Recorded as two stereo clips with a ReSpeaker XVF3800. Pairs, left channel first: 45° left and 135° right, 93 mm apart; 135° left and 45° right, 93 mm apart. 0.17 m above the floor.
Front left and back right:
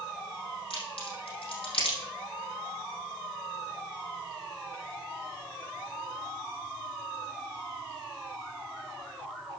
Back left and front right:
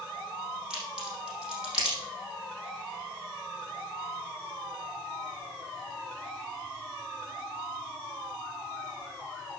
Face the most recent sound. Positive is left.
turn(degrees=35)